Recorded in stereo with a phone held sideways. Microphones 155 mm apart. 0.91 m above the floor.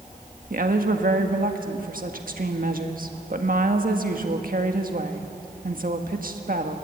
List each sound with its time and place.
0.5 s a woman speaking: 65° right (ahead or behind), 1.6 m